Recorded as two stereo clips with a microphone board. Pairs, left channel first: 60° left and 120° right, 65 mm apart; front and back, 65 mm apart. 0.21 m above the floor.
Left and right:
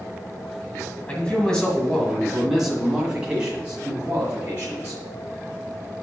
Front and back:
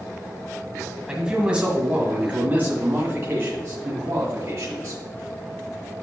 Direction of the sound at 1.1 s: 115° left.